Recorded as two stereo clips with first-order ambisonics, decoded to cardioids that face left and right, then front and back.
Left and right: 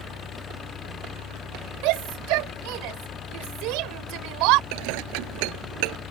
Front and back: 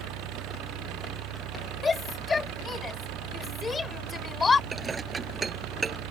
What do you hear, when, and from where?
0.0 s an engine running: 150° left
1.8 s a shout: 75° right
4.7 s dishes clattering: 105° right